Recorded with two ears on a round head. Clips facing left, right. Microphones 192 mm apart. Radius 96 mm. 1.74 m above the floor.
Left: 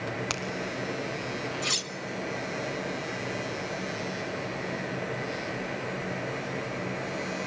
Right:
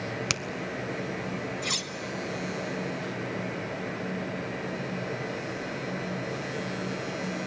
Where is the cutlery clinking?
5° left (ahead or behind), 0.8 m.